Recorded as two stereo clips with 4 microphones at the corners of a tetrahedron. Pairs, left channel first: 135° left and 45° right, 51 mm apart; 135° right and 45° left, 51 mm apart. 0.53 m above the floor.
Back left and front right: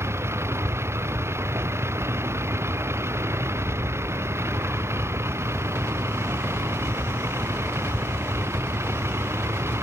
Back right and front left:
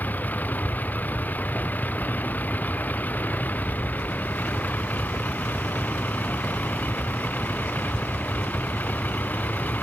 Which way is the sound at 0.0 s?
80° right.